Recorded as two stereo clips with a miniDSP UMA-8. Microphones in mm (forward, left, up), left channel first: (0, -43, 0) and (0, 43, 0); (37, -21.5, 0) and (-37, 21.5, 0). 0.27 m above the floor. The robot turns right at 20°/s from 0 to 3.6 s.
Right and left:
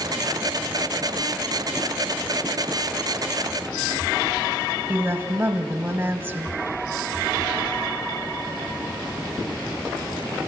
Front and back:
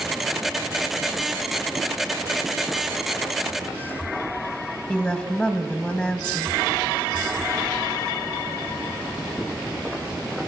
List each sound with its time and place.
4.9 s a woman speaking: 50° left, 1.0 m